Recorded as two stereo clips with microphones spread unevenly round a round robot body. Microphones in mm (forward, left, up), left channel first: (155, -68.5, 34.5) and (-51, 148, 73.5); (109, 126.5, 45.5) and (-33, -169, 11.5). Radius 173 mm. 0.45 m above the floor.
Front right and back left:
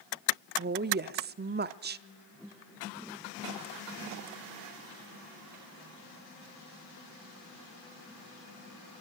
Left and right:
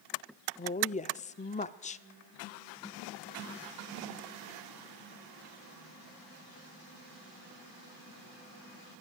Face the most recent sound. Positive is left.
turn(degrees=115)